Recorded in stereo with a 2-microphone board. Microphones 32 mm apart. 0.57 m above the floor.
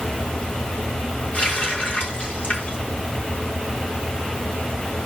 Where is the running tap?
60° left (ahead or behind), 4 m.